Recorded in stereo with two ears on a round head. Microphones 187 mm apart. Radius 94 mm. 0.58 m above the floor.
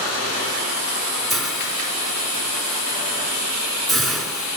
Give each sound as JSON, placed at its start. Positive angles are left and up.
{"t": 1.3, "sound": "a hiss", "side_deg": 0, "distance_m": 2.0}